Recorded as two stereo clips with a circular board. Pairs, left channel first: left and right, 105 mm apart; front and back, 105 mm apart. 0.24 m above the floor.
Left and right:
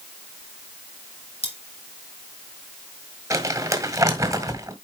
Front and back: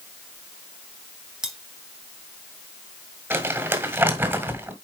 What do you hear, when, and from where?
1.4 s cutlery clinking: 95° left, 2 m
3.3 s crumpling: 125° right, 1.8 m